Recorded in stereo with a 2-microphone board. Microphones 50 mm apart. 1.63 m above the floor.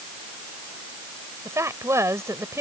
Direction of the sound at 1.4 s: 75° right (ahead or behind).